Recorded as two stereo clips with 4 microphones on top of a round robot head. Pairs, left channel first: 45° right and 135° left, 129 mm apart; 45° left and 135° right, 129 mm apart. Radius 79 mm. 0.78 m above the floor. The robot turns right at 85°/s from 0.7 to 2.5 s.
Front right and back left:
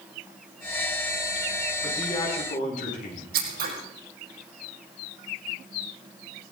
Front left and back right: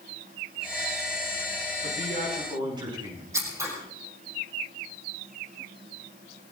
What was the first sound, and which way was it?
A man speaking, 135° right.